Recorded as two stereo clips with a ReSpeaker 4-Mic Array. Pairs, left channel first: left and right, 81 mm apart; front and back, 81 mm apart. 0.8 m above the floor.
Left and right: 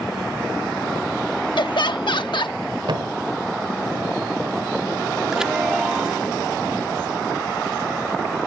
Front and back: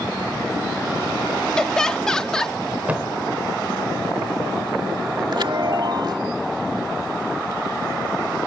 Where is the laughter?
80° left.